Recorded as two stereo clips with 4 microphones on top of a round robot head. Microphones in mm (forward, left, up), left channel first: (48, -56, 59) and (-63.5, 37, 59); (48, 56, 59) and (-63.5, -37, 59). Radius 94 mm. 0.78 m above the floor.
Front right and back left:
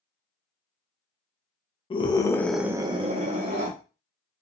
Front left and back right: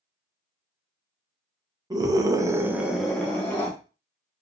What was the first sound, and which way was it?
A scream, 80° right.